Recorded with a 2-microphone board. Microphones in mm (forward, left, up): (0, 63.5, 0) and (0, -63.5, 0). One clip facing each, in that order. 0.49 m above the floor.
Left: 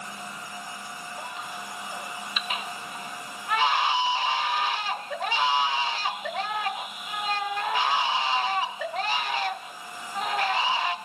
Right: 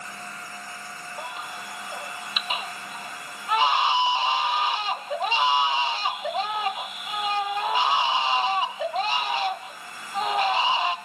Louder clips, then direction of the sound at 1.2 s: Right 3 dB; 20° right (ahead or behind).